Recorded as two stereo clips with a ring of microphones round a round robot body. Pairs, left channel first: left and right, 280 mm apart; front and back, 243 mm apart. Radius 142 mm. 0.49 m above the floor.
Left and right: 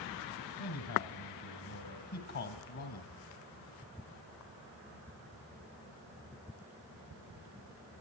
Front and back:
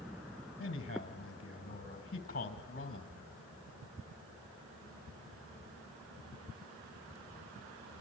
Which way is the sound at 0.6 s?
50° left.